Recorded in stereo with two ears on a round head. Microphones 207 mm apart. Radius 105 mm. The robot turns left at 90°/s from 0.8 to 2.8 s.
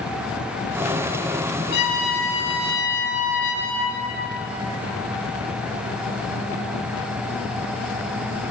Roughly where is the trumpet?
Behind left.